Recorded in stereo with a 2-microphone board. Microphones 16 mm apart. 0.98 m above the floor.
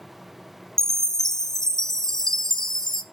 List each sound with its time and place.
0.8 s a chime: 35° left (ahead or behind), 0.5 m